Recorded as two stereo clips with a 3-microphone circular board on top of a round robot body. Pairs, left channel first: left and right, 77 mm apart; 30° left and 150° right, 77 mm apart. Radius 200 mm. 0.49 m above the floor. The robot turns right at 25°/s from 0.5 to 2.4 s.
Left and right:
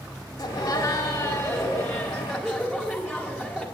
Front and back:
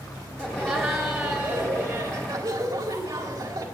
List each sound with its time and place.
0.4 s laughter: 135° left, 3.5 m; by 3.6 s 175° right, 3.5 m